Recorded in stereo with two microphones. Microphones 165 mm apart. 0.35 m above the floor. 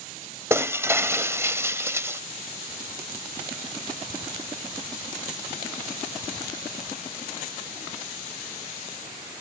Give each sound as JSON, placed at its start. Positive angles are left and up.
{"t": 0.5, "sound": "breaking glass", "side_deg": -15, "distance_m": 0.8}